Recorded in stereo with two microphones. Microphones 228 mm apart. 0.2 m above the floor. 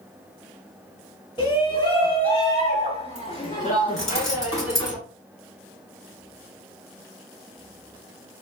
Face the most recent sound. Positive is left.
turn(degrees=55)  # may be behind; listen again after turning